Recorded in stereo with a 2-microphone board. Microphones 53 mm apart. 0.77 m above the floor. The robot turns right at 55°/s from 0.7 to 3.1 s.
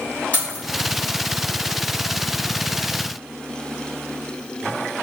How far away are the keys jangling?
About 1.0 m.